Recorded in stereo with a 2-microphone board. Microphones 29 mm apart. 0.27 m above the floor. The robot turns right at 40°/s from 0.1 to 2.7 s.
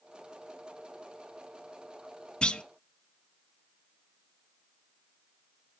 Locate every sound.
2.4 s a clunk: 40° left (ahead or behind), 0.7 m; by 2.6 s 30° left (ahead or behind), 0.7 m